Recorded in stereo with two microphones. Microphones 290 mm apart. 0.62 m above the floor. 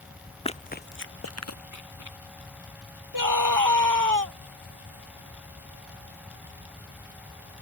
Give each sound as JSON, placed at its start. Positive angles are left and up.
{"t": 0.5, "sound": "running footsteps", "side_deg": 20}
{"t": 3.1, "sound": "a scream", "side_deg": -85}